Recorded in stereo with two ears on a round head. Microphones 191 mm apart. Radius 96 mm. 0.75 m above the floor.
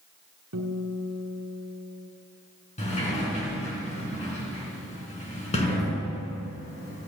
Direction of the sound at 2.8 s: 35° left (ahead or behind).